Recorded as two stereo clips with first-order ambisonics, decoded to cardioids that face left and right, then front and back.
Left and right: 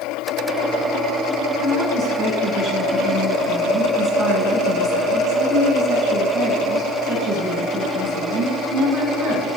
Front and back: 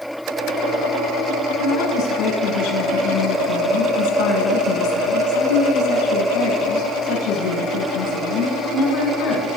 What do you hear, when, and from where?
1.6 s a woman speaking: 10° right, 5 m